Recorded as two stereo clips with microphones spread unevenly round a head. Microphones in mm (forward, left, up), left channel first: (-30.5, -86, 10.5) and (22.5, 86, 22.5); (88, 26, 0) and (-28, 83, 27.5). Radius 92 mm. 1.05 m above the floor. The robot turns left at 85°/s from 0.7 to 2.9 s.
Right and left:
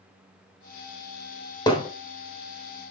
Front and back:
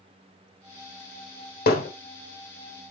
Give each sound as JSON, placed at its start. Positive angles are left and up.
{"t": 1.7, "sound": "hammering", "azimuth_deg": -35, "distance_m": 1.1}